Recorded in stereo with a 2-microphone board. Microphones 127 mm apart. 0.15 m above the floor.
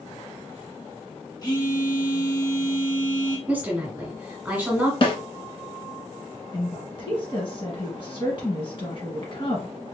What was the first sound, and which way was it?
A phone buzzing, 35° left (ahead or behind).